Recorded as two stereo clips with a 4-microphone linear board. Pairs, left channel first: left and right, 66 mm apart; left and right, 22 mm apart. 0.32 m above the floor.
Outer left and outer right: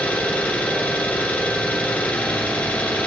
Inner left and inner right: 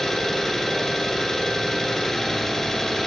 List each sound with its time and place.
0.0 s an engine running: 20° left (ahead or behind), 1.9 m